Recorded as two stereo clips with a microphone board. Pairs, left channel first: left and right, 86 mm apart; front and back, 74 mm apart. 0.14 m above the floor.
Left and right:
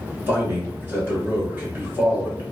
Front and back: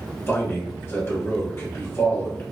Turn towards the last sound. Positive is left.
turn(degrees=-35)